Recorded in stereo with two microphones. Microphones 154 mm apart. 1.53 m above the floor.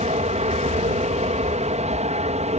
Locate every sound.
0.0 s an aircraft: 45° right (ahead or behind)